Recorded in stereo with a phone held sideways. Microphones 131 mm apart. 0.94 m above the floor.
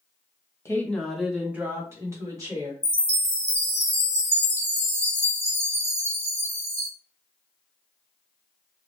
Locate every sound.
0.7 s a woman speaking: 20° left (ahead or behind), 0.7 m; by 2.7 s 30° right (ahead or behind), 1.8 m
2.8 s a chime: 50° left (ahead or behind), 0.8 m